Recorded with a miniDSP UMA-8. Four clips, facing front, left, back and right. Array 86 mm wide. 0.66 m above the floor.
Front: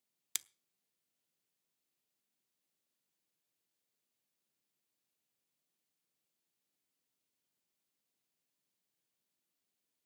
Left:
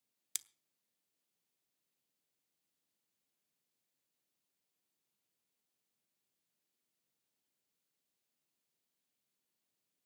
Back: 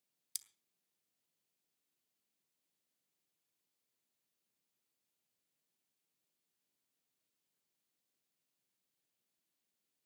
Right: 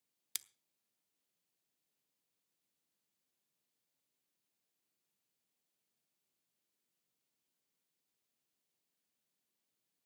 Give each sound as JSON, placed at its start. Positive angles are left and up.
{"t": 0.3, "sound": "scissors", "azimuth_deg": -5, "distance_m": 0.6}